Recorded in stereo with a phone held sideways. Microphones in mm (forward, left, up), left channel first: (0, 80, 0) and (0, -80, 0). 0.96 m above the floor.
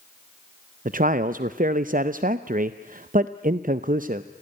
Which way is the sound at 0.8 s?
60° right (ahead or behind).